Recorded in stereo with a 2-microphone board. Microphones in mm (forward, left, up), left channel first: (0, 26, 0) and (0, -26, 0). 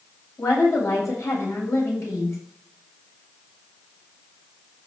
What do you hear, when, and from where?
0.4 s a woman speaking: 70° left (ahead or behind), 6.5 m